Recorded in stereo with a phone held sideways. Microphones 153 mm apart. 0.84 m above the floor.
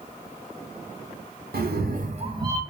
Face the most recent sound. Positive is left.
turn(degrees=-20)  # may be behind; listen again after turning